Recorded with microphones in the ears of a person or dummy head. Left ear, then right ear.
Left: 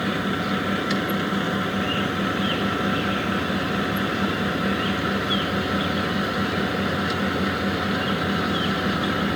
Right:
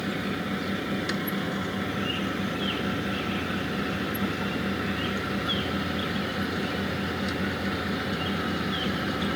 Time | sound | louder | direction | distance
0.0 | a fan | left 6 dB | 30° left (ahead or behind) | ?